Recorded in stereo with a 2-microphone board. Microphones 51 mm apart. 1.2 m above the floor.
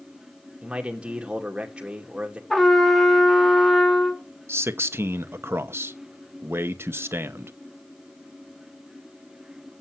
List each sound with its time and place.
0.6 s a man speaking: 20° right (ahead or behind), 2 m
2.5 s a trumpet: 5° left (ahead or behind), 1.5 m
4.5 s a man speaking: 50° right (ahead or behind), 1.0 m